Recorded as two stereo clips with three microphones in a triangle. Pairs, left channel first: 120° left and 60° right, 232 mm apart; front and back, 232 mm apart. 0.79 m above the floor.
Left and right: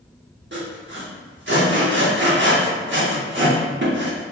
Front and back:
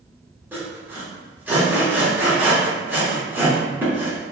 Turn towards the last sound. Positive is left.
turn(degrees=-100)